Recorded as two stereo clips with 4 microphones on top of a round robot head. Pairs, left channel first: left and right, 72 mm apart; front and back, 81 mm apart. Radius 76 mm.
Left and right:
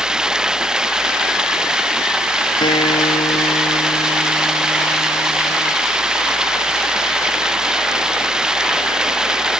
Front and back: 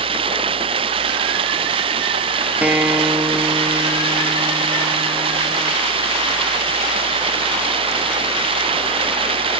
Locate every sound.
0.0 s running water: 170° right
2.6 s a guitar: 110° left